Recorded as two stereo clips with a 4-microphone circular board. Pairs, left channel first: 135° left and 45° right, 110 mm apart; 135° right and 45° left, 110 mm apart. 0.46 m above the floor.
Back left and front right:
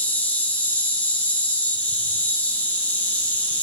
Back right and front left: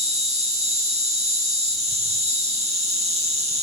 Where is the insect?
60° left, 2.5 m.